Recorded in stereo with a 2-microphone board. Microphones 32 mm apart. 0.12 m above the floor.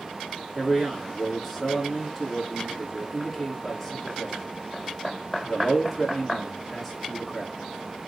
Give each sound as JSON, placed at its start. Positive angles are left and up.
{"t": 0.6, "sound": "a man speaking", "side_deg": 0, "distance_m": 1.2}